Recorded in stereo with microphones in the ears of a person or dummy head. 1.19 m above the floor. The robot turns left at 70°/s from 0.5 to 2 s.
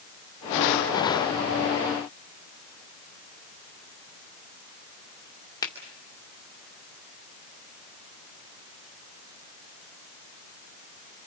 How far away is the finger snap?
About 2.5 m.